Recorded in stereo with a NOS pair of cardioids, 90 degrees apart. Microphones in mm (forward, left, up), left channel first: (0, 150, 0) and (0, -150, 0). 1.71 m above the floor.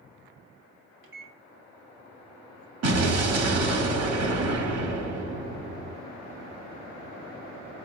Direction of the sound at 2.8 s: 55° right.